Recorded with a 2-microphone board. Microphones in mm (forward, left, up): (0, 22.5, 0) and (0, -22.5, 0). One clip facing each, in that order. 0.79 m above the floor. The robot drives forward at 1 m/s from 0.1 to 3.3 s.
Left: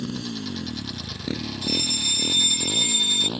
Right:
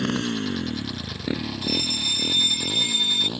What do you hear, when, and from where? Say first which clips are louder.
0.0 s a motorcycle: right 6 dB; 60° right (ahead or behind); by 3.4 s 15° left (ahead or behind)
1.6 s a fire alarm: left 1 dB; 5° right (ahead or behind)